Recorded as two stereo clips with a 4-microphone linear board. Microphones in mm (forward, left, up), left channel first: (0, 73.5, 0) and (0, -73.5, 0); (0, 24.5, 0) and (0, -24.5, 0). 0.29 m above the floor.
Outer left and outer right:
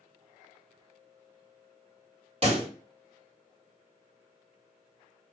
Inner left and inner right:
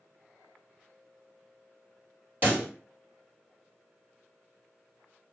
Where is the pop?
45° right (ahead or behind), 2.0 m.